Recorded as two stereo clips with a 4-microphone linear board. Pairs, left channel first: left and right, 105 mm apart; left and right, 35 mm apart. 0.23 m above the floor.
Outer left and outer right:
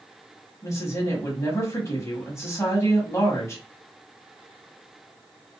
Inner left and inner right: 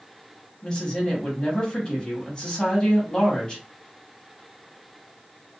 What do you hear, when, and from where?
0.6 s a woman speaking: 25° left (ahead or behind), 1.2 m